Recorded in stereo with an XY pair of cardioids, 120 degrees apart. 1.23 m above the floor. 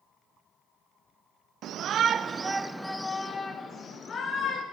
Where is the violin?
No violin in this recording.